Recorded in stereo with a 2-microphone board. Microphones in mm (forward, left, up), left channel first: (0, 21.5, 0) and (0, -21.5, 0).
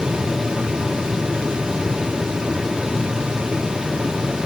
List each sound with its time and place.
Only background noise.